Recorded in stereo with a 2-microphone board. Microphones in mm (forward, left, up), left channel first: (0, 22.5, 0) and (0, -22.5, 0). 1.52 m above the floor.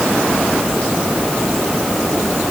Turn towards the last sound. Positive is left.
No sound to turn to.